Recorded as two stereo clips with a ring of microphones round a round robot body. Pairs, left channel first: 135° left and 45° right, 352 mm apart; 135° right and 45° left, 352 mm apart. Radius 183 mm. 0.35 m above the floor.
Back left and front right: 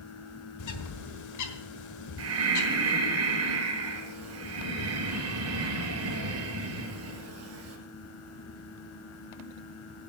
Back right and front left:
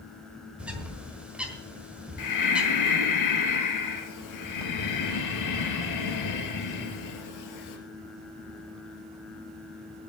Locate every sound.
0.6 s a bird: 130° left, 1.5 m
2.2 s breathing: 95° right, 2 m